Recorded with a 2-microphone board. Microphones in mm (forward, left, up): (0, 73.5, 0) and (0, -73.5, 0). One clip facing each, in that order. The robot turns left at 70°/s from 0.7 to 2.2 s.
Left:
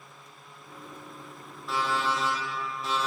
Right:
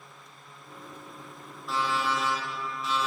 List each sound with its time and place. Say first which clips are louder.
1.7 s an alarm clock: even; straight behind, 2 m; by 3.1 s 145° left, 2 m